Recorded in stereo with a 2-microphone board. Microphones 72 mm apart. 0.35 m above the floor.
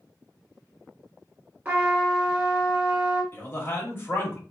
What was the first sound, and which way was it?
A trumpet, 25° right (ahead or behind).